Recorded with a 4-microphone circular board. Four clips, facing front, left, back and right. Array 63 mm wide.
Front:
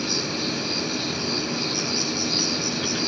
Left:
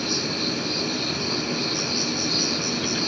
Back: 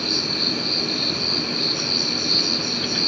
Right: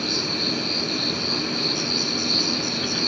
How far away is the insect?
About 2.5 m.